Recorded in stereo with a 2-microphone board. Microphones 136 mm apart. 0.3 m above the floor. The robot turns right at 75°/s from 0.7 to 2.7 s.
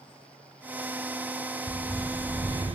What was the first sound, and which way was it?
A bird, 150° left.